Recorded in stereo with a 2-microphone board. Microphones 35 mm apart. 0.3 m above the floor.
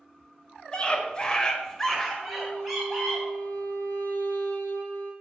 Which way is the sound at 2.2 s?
60° left (ahead or behind).